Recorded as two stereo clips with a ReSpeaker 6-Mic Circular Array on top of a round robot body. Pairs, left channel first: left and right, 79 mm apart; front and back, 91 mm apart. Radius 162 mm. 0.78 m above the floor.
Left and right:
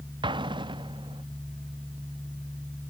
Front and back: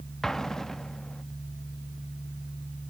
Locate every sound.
0.2 s an explosion: 85° right